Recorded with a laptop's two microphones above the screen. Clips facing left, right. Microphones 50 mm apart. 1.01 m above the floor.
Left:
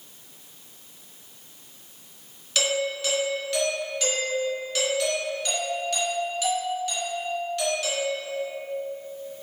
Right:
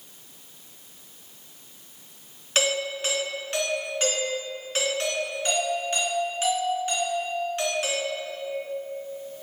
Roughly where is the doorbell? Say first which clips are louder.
Even; right.